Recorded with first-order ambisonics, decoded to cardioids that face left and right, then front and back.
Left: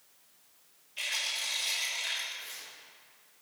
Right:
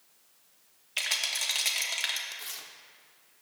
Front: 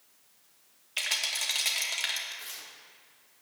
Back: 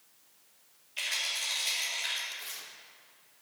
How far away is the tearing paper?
About 1.3 m.